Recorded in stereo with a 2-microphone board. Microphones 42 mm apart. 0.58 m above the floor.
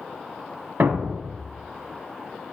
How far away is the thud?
About 0.6 m.